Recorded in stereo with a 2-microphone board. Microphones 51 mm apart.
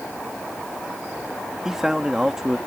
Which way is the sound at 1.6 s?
10° right (ahead or behind).